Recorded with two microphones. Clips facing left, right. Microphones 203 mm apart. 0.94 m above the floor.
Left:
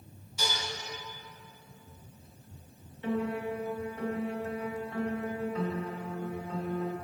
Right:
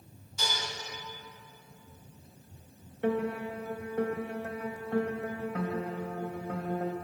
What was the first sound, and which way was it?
Dishes clattering, 10° left (ahead or behind).